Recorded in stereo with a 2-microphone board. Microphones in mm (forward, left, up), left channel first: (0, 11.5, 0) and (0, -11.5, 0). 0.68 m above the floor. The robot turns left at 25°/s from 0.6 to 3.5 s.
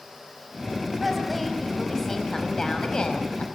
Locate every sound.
1.0 s a woman speaking: 175° right, 5.5 m; by 3.4 s 125° left, 5.5 m